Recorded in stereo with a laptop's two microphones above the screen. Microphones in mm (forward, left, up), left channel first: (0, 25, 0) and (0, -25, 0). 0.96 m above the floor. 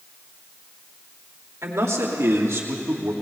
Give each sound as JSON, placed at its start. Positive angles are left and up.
{"t": 1.6, "sound": "a man speaking", "side_deg": -75, "distance_m": 2.5}